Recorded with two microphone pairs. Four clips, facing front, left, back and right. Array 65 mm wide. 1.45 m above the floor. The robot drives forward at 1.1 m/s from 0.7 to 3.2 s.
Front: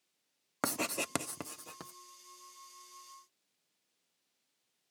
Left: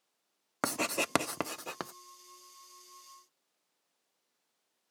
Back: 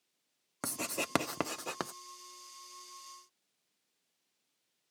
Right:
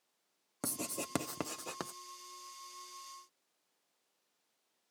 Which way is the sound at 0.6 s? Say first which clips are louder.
Left 9 dB, front 3 dB; 60° left.